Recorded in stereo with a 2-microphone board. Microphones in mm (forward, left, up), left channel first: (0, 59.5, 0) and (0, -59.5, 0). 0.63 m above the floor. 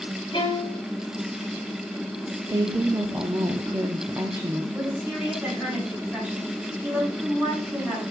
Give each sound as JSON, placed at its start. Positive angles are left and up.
{"t": 0.3, "sound": "a violin", "side_deg": 40, "distance_m": 1.7}
{"t": 2.5, "sound": "a woman speaking", "side_deg": -25, "distance_m": 0.9}
{"t": 4.7, "sound": "a woman speaking", "side_deg": -15, "distance_m": 5.5}